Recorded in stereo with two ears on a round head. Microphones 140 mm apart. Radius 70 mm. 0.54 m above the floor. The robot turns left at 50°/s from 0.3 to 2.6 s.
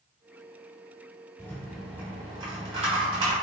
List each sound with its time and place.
1.4 s a rattle: 20° left, 1.3 m; by 3.3 s 40° right, 1.3 m